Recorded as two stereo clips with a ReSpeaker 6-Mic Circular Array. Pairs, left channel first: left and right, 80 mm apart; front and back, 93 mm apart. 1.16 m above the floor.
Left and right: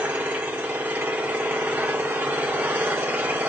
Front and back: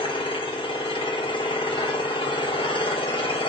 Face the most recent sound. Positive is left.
turn(degrees=-20)